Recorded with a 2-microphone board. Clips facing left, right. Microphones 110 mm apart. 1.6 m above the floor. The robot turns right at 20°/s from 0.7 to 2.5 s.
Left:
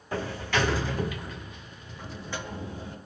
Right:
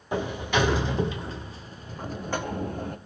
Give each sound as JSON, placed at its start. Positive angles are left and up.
{"t": 0.1, "sound": "a sliding door", "azimuth_deg": -165, "distance_m": 0.8}